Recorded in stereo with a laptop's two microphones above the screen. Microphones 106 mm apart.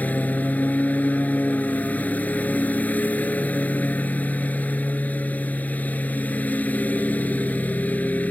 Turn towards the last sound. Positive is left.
turn(degrees=15)  # may be behind; listen again after turning